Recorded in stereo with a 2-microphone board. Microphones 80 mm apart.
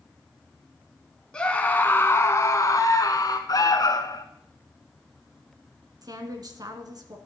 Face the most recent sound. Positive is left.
turn(degrees=-50)  # may be behind; listen again after turning